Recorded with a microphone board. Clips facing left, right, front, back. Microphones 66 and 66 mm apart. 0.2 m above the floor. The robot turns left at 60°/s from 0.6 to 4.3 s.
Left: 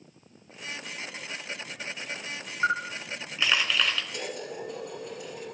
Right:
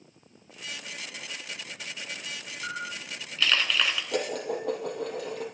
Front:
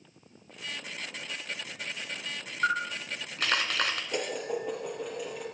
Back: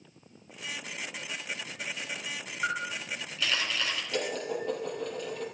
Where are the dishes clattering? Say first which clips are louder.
Right 6 dB, even; 70° right, 4.5 m; by 5.5 s 80° right, 4.5 m.